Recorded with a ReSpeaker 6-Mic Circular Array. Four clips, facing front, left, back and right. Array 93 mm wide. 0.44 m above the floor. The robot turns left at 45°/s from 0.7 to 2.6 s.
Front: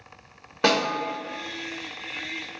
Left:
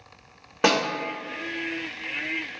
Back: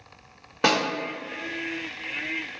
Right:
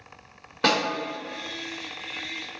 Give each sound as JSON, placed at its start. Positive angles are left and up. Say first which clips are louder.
{"t": 0.6, "sound": "a snare drum", "louder": "left 2 dB, front 1 dB", "azimuth_deg": 100, "distance_m": 1.2}